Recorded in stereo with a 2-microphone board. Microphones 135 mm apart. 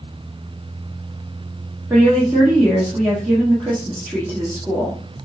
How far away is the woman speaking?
About 1.2 m.